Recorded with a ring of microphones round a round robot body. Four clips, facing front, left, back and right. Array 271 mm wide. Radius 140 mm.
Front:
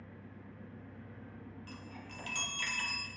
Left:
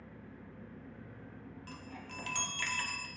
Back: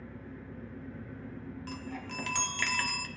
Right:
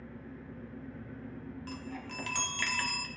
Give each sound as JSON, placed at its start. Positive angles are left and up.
{"t": 0.0, "sound": "an engine running", "azimuth_deg": -155, "distance_m": 3.5}
{"t": 1.7, "sound": "a chime", "azimuth_deg": -155, "distance_m": 1.1}